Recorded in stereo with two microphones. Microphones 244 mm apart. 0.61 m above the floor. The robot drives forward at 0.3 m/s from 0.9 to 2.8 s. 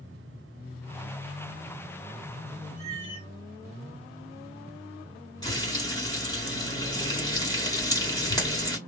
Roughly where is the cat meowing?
Right.